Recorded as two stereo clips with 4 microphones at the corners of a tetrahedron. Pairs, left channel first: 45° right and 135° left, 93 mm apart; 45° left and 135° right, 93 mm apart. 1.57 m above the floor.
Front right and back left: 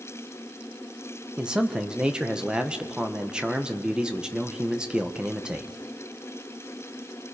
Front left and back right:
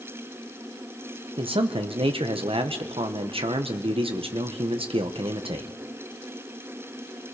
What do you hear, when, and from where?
1.4 s a man speaking: 145° right, 1.2 m